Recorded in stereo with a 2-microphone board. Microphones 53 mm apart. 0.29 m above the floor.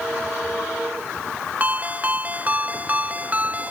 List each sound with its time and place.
1.6 s a ringtone: 30° right (ahead or behind)